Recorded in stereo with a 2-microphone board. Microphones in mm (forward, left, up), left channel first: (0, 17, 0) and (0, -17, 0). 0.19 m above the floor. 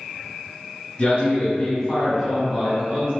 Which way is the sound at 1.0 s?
35° left (ahead or behind).